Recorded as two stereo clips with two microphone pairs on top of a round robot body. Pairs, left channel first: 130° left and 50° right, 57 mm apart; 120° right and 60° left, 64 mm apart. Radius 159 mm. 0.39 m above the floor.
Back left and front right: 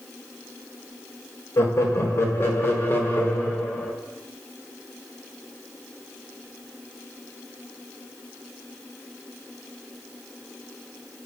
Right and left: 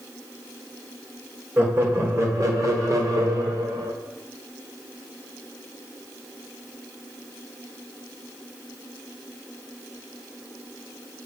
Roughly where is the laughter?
Behind left.